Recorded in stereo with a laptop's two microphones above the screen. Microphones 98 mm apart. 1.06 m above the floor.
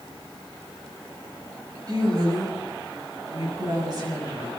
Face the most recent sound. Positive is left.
turn(degrees=-45)  # may be behind; listen again after turning